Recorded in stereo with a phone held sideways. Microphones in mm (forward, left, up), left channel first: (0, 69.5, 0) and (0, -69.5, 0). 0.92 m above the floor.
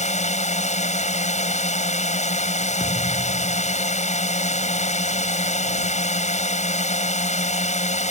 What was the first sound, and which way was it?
A drone, 60° left (ahead or behind).